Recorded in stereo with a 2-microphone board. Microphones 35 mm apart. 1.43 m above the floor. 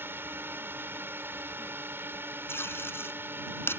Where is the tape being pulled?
80° left.